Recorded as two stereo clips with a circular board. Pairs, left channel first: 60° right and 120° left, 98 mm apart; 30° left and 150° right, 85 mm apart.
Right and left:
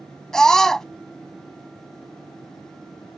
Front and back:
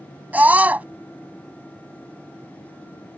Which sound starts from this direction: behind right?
A scream, at 0.3 s.